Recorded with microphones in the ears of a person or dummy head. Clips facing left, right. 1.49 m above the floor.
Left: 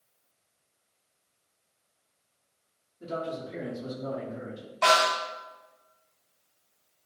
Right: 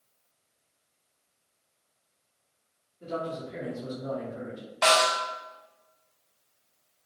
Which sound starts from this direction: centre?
A snare drum, at 4.8 s.